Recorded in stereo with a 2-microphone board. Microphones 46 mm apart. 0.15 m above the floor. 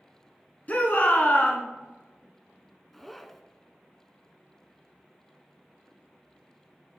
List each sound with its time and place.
0.7 s a shout: 40° left (ahead or behind), 1.4 m
2.9 s a zipper: 5° left (ahead or behind), 0.6 m